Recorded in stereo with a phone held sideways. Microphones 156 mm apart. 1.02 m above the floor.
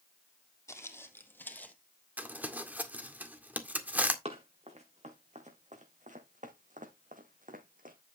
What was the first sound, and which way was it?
Footsteps, 20° left (ahead or behind).